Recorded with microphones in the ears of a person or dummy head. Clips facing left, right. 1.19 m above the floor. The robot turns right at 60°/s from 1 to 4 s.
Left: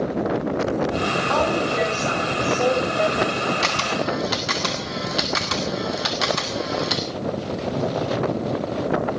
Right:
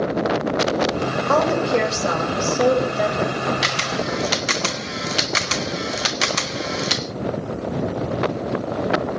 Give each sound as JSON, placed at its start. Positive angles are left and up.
{"t": 1.3, "sound": "a woman speaking", "azimuth_deg": -115, "distance_m": 6.5}
{"t": 3.6, "sound": "a camera shutter", "side_deg": -15, "distance_m": 1.1}